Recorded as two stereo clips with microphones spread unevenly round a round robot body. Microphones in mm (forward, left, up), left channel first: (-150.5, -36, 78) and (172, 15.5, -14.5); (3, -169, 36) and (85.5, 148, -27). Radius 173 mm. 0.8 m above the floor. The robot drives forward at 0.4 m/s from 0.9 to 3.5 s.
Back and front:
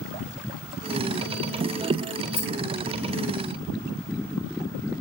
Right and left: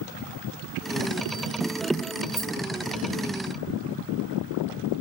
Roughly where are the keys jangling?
Behind.